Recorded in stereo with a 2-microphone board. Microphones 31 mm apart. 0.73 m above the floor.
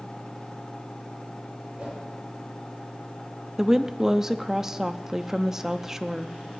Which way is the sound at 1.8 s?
35° right (ahead or behind).